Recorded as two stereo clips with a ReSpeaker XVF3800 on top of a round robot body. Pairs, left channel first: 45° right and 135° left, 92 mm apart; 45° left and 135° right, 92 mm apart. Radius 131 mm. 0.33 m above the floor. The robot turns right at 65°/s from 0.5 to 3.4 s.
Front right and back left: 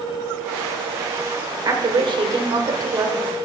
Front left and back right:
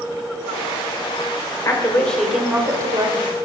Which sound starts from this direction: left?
A woman speaking, at 1.6 s.